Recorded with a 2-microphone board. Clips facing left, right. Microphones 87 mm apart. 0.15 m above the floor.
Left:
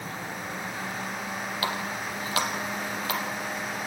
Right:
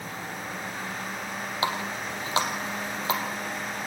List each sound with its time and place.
1.6 s a running tap: 25° right (ahead or behind), 3 m